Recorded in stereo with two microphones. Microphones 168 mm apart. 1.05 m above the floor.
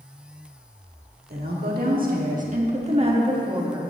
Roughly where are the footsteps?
I don't hear footsteps.